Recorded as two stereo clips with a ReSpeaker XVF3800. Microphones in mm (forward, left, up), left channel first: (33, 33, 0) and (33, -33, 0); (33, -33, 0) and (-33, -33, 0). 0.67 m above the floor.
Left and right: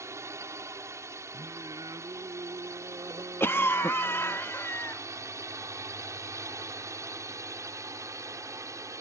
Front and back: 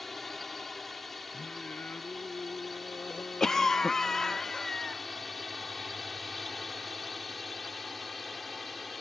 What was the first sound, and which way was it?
A drone, 85° right.